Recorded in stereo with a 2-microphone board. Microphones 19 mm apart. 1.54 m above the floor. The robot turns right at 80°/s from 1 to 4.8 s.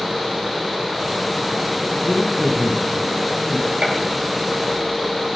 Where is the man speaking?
15° right, 2 m; by 3.7 s 125° left, 2 m.